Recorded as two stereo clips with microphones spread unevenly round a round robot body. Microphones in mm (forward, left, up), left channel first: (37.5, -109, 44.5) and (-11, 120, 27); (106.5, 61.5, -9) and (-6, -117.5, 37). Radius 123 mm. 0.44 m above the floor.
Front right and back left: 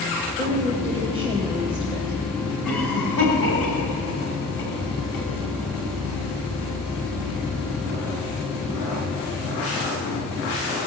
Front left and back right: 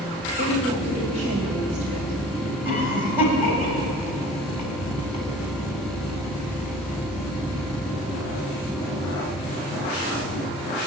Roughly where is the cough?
Ahead right.